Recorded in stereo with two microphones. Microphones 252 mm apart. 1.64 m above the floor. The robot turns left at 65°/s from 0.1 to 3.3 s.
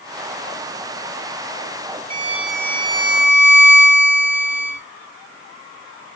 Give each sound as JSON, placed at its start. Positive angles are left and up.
{"t": 2.1, "sound": "a violin", "azimuth_deg": -150, "distance_m": 2.5}